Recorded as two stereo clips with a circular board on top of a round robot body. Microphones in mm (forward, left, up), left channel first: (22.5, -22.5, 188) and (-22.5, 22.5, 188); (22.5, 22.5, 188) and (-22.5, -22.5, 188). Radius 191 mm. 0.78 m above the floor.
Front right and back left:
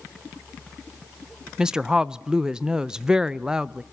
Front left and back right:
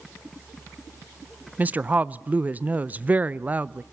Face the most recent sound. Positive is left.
turn(degrees=-160)